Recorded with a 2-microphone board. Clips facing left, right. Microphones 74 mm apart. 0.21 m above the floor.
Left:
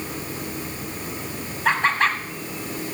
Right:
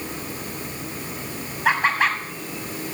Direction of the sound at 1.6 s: 5° right (ahead or behind).